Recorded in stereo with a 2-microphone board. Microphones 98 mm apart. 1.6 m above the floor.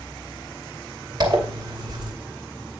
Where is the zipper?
45° right (ahead or behind), 2.5 m.